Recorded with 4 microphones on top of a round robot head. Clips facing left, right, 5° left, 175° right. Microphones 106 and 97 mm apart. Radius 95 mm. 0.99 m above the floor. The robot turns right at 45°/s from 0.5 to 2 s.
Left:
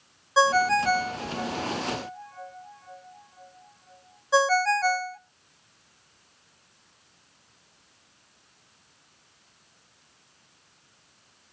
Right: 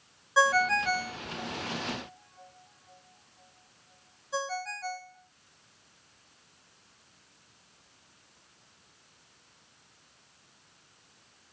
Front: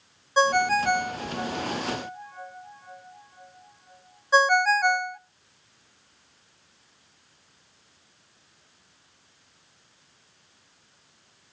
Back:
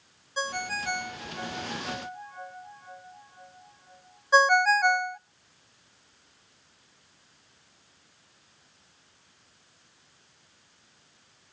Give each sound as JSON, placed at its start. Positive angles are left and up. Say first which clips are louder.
{"t": 0.4, "sound": "a ringtone", "louder": "left 4 dB, front 12 dB", "azimuth_deg": 25, "distance_m": 0.6}